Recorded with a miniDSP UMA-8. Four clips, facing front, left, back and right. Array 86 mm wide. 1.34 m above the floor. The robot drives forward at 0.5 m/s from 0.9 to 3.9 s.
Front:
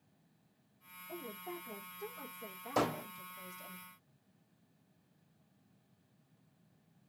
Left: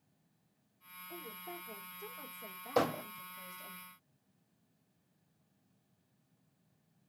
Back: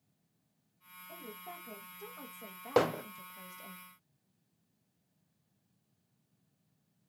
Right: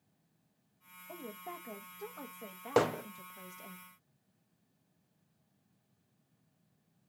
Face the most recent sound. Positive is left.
turn(degrees=-145)